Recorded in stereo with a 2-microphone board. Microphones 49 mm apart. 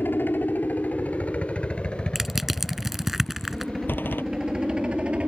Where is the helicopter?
45° left (ahead or behind); by 5.3 s 20° right (ahead or behind).